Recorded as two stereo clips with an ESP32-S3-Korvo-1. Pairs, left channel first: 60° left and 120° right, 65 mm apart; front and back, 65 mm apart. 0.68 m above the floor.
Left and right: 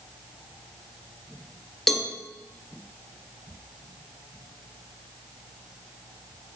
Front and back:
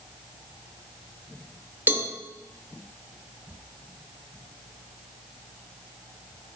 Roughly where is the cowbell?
Behind left.